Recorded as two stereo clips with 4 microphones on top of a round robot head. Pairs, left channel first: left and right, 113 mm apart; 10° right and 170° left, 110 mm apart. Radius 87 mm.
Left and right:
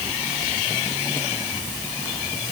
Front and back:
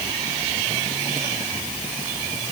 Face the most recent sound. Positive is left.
No sound to turn to.